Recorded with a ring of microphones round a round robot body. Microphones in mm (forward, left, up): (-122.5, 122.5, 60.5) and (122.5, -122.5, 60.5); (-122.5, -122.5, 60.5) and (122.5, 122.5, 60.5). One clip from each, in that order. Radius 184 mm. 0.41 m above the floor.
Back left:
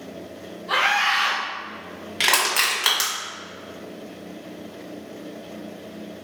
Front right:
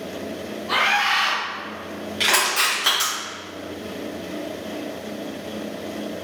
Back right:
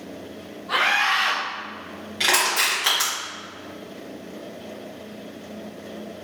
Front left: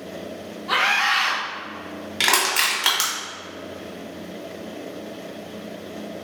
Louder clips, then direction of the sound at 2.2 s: Even, front left 1 dB; 85° left.